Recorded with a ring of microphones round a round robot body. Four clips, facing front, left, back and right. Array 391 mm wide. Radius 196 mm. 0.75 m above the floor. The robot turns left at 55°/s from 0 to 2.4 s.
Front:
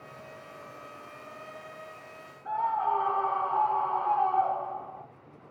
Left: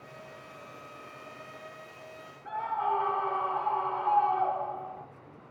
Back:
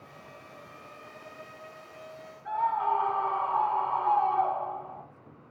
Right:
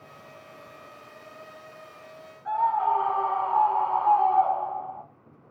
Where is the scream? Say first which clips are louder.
Right 7 dB, back 1 dB; 115° right, 2.5 m.